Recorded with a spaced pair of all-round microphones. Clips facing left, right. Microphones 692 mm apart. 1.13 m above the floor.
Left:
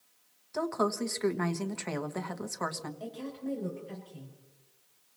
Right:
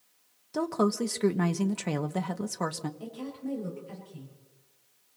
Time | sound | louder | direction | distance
0.5 | a woman speaking | right 4 dB | 60° right (ahead or behind) | 1.1 m
3.0 | a woman speaking | right 1 dB | 40° right (ahead or behind) | 5 m